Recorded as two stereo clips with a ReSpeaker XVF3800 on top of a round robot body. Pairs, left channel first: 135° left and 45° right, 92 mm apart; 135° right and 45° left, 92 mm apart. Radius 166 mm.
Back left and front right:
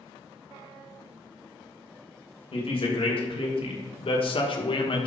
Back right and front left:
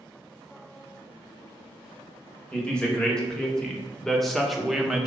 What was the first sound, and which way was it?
A woman speaking, 145° left.